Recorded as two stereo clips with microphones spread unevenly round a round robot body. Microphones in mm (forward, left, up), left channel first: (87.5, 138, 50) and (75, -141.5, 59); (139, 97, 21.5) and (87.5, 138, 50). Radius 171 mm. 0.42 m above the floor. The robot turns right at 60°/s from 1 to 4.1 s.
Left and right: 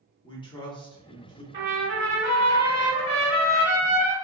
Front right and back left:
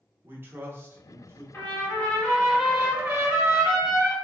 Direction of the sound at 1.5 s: 25° right.